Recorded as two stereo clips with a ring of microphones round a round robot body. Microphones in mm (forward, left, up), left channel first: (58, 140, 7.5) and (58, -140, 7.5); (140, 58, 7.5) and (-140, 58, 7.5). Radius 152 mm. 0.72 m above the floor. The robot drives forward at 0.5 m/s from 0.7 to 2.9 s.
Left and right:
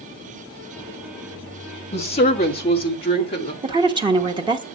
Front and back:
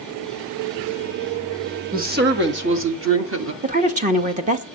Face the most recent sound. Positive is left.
turn(degrees=-145)